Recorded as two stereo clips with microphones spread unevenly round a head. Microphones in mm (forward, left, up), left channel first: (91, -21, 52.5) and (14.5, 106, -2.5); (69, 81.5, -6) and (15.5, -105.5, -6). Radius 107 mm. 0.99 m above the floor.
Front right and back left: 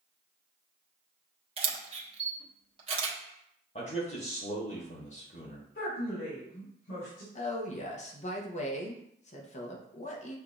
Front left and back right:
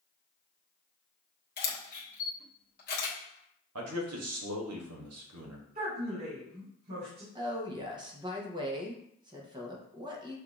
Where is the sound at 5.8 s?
65° right, 2.5 m.